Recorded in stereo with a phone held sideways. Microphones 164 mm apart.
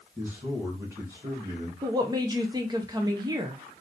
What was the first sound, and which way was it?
A man speaking, 5° right (ahead or behind).